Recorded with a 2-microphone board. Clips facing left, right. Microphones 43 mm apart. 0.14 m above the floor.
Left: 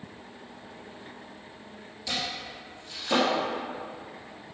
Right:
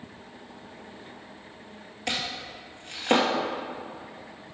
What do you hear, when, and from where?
2.1 s chopping: 55° right (ahead or behind), 2.5 m